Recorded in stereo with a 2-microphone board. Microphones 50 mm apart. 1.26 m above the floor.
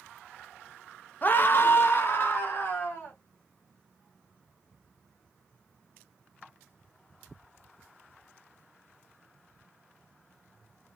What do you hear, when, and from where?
1.2 s a scream: 35° left (ahead or behind), 0.6 m; by 3.1 s 40° left (ahead or behind), 2 m